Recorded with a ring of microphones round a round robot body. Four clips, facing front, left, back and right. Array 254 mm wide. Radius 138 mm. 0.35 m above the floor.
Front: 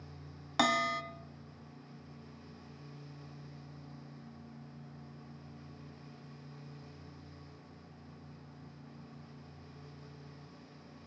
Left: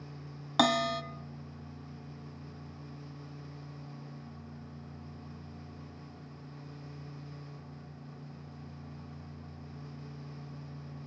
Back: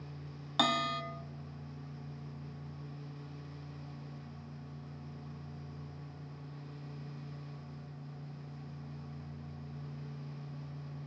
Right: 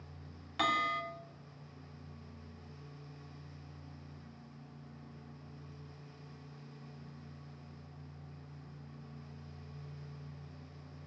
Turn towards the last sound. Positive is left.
turn(degrees=85)